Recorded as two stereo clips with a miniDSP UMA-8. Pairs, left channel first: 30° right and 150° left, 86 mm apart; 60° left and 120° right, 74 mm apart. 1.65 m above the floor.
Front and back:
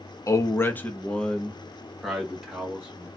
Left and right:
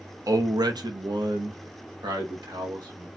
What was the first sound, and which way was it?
A man speaking, 85° right.